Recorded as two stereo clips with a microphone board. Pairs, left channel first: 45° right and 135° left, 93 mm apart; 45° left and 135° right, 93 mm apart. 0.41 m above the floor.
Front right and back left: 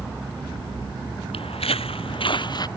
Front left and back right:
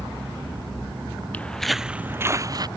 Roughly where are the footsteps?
Ahead right.